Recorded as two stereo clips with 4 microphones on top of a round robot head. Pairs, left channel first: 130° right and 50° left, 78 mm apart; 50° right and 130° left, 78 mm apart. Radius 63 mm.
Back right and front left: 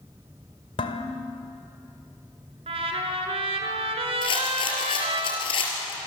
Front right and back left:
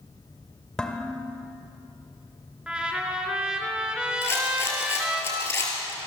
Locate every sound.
0.8 s dishes clattering: 130° right, 1.9 m
2.7 s a trumpet: 55° left, 3.5 m
4.2 s a rattle: 110° right, 5 m